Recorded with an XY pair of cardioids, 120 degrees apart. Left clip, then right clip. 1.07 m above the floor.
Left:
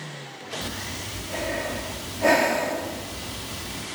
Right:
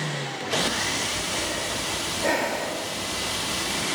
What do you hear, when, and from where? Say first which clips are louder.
0.6 s breathing: right 7 dB; 50° left, 1.5 m